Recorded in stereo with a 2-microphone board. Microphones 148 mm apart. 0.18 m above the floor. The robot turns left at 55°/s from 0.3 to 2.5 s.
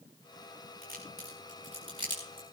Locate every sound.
0.8 s a crack: 80° right, 7.5 m; by 2.4 s 10° right (ahead or behind), 7.5 m